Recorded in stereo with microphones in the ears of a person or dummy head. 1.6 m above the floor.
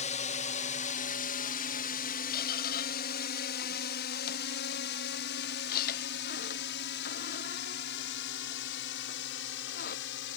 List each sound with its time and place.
0.0 s a drone: 35° left (ahead or behind); by 10.4 s 60° left (ahead or behind)
2.3 s a squeak: 55° left (ahead or behind)